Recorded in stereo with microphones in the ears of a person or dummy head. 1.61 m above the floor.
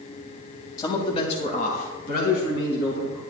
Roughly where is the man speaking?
Left.